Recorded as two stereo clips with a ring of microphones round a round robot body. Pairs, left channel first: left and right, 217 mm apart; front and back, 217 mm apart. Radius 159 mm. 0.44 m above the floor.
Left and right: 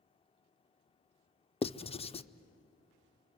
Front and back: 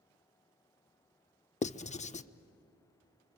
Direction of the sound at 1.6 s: 40° left.